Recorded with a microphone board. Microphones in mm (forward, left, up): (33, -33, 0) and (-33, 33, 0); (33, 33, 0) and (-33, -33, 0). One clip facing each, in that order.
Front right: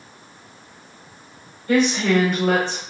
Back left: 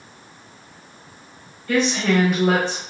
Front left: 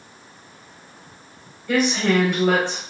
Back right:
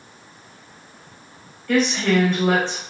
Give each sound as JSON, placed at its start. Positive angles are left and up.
{"t": 1.7, "sound": "a woman speaking", "azimuth_deg": -30, "distance_m": 1.0}